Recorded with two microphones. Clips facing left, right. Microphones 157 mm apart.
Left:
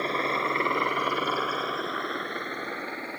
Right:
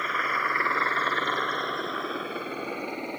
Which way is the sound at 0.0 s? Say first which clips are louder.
Left 3 dB; 30° left (ahead or behind).